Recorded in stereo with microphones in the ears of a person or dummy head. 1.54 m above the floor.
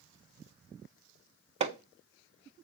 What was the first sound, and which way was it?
Hammering, 30° right (ahead or behind).